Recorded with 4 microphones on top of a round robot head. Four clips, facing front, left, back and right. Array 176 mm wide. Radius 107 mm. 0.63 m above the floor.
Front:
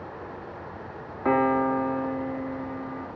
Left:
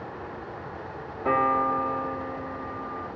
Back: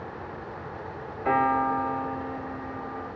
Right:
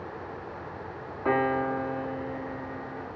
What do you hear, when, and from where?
1.2 s a piano: 5° right, 2.0 m